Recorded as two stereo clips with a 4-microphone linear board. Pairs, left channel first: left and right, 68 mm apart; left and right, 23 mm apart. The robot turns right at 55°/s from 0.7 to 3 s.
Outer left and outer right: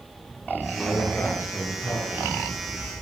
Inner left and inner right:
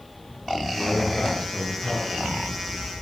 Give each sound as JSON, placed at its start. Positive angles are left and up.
{"t": 0.8, "sound": "a man speaking", "azimuth_deg": 5, "distance_m": 8.5}